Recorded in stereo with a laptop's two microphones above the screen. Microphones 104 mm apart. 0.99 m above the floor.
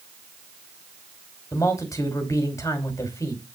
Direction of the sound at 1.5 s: 35° left (ahead or behind).